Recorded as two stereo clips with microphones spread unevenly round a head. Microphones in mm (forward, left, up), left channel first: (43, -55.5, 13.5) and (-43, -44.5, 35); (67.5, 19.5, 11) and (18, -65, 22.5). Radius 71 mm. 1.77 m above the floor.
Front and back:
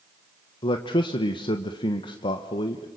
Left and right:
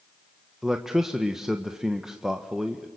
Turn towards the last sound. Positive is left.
turn(degrees=-40)